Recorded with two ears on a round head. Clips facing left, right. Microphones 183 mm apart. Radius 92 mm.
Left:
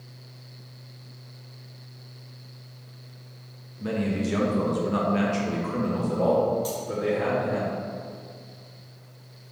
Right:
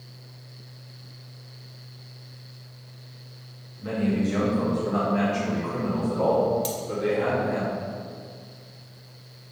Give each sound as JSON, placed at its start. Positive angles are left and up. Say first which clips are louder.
{"t": 3.8, "sound": "a man speaking", "louder": "right 2 dB", "side_deg": 60, "distance_m": 1.5}
{"t": 6.6, "sound": "cutlery clinking", "louder": "even", "side_deg": -35, "distance_m": 1.2}